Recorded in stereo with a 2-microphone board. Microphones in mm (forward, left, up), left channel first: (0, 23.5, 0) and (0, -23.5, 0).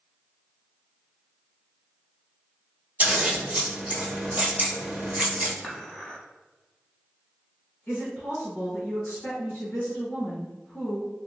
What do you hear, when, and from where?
3.0 s scissors: 30° right (ahead or behind), 1.3 m
5.6 s dishes clattering: 15° left (ahead or behind), 0.8 m
7.9 s a woman speaking: 35° left (ahead or behind), 1.4 m